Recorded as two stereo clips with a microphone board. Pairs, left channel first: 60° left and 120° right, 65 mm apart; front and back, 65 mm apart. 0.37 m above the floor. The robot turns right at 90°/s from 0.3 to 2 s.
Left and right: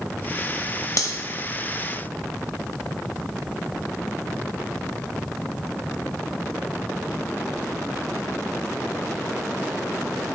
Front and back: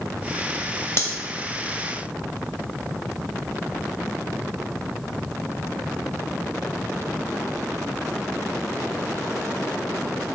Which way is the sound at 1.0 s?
40° left.